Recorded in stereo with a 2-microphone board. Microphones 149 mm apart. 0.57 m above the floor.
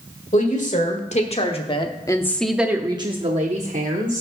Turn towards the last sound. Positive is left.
turn(degrees=-65)  # may be behind; listen again after turning